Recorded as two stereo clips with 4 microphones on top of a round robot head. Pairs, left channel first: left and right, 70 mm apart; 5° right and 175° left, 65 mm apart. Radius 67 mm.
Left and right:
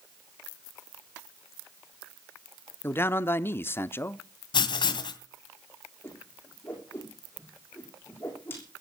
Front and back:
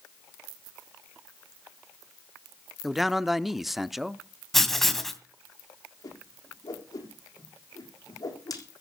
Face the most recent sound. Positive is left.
turn(degrees=25)